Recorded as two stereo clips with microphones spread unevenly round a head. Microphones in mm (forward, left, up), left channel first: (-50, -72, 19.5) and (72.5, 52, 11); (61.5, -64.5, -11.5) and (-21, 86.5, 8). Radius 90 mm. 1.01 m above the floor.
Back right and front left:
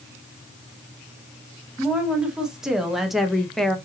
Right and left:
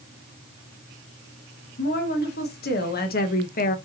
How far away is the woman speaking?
About 1.7 m.